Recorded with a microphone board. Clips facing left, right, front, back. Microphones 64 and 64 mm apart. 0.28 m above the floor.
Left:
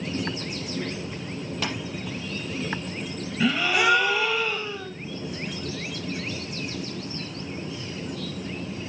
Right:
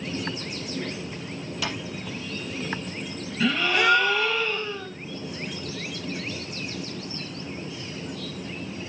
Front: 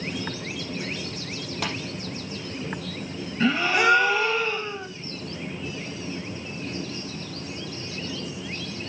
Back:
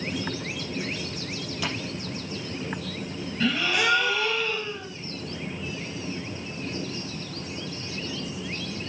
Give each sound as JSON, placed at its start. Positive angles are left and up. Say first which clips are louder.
{"t": 1.6, "sound": "tapping", "louder": "left 1 dB, front 1 dB", "azimuth_deg": 40, "distance_m": 4.5}
{"t": 3.4, "sound": "a gasp", "louder": "even, front 4 dB", "azimuth_deg": 20, "distance_m": 1.3}